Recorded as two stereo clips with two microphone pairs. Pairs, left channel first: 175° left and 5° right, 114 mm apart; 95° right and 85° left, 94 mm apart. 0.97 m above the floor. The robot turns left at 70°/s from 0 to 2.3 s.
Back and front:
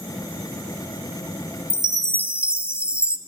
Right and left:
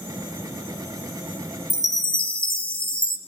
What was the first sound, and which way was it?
A chime, 40° right.